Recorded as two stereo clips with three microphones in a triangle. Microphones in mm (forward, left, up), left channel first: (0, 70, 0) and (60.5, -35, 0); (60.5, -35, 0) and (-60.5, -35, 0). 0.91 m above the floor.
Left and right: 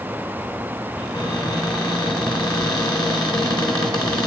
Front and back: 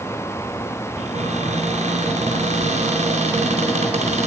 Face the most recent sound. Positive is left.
turn(degrees=175)